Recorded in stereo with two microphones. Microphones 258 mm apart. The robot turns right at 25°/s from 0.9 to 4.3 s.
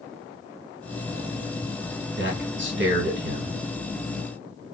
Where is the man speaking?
95° right, 1.1 m; by 3.6 s 60° right, 1.1 m.